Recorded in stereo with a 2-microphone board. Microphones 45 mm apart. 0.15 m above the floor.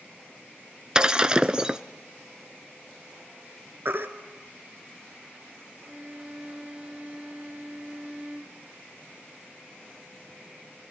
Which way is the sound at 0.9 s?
20° right (ahead or behind).